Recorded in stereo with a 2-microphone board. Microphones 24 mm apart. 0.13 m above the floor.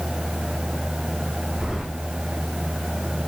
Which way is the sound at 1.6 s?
25° right (ahead or behind).